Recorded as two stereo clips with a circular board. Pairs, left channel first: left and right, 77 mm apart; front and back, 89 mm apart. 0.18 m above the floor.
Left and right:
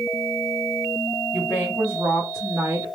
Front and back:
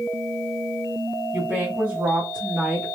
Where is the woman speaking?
140° right, 1.8 m; by 2.9 s 100° right, 1.8 m.